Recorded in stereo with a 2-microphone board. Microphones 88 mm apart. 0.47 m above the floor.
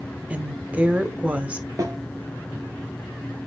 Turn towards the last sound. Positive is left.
turn(degrees=-40)  # may be behind; listen again after turning